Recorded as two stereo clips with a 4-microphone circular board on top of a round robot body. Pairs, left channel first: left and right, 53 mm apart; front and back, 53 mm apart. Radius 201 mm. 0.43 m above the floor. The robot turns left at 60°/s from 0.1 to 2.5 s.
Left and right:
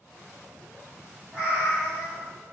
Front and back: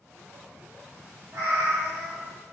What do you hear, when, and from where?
1.3 s a cat meowing: 155° right, 1.4 m; by 2.3 s 145° left, 1.4 m